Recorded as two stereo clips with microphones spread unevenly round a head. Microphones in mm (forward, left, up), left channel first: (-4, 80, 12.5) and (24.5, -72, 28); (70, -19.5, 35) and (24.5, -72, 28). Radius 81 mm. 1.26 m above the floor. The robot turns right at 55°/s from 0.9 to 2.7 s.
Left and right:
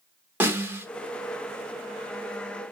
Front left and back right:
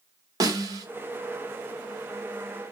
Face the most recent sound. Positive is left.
turn(degrees=-45)